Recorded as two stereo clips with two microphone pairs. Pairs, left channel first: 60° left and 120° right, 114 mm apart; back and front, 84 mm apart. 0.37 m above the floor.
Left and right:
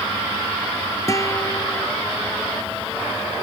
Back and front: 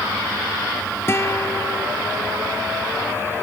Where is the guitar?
120° left.